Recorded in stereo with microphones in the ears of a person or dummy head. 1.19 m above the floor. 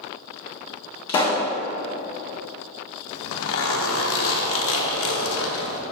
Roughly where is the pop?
Left.